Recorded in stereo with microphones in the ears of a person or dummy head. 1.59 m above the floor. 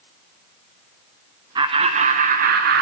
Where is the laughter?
25° right (ahead or behind), 0.8 m; by 2.8 s 60° right (ahead or behind), 1.1 m.